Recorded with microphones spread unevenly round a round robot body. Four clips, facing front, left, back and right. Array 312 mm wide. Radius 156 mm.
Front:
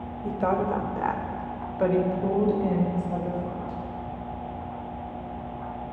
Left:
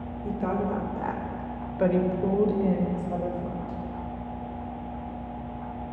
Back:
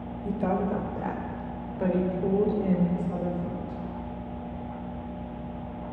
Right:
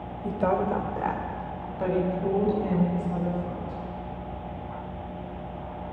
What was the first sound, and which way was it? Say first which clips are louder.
A woman speaking: right 3 dB, front 2 dB; 80° right.